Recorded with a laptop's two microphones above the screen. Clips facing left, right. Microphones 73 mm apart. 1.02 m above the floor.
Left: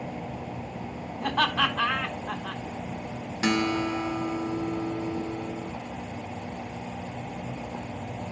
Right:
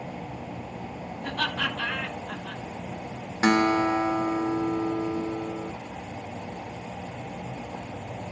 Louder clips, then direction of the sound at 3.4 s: Right 5 dB; 40° right (ahead or behind).